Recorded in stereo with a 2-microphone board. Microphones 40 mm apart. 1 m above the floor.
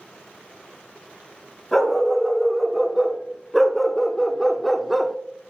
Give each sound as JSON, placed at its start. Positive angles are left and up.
{"t": 1.7, "sound": "a dog barking", "side_deg": 5, "distance_m": 2.0}